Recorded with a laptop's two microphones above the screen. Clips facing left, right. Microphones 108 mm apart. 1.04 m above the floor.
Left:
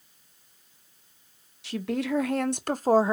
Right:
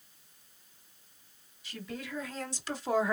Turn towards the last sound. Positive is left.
turn(degrees=25)  # may be behind; listen again after turning